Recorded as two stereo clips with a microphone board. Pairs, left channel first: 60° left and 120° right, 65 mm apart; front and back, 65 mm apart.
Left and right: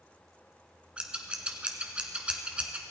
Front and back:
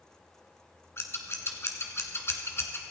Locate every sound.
1.0 s scissors: 50° right, 1.6 m